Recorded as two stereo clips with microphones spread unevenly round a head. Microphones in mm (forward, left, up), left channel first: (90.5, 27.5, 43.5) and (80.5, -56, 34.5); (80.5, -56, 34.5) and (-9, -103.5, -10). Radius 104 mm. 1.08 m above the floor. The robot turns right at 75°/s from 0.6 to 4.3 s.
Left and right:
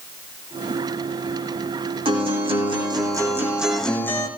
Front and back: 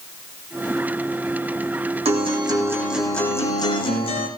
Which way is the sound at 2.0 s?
135° right.